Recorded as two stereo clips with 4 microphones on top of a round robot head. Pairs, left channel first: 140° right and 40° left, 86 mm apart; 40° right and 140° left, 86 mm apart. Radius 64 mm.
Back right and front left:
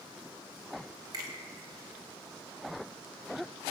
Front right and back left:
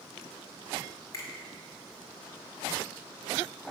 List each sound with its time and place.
1.1 s a finger snap: 5° left, 2 m